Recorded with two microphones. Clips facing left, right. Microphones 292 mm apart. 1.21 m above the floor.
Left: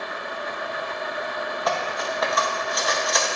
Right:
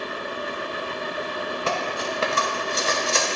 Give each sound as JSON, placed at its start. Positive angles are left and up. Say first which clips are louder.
{"t": 1.7, "sound": "cutlery clinking", "louder": "left 1 dB", "side_deg": -30, "distance_m": 0.7}